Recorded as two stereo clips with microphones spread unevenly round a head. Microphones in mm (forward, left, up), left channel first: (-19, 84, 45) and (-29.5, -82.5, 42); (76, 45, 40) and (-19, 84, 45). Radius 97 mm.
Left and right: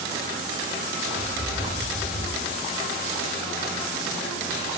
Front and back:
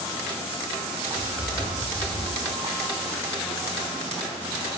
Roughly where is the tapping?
Ahead right.